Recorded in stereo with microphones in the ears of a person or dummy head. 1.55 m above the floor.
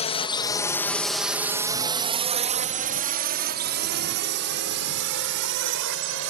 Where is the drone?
30° left (ahead or behind); by 6.3 s 70° right (ahead or behind).